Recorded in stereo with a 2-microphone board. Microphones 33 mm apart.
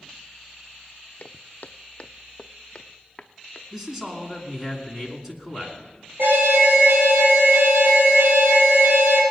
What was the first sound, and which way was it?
Footsteps, 55° left (ahead or behind).